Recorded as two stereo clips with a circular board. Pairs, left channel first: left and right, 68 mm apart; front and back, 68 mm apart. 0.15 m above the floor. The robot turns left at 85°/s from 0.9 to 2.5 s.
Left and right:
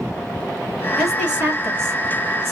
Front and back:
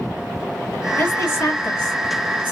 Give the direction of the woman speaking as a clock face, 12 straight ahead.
12 o'clock.